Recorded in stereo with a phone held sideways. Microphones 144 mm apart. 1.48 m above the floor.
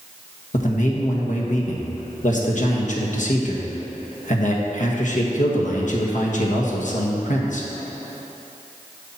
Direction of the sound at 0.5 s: 60° left (ahead or behind).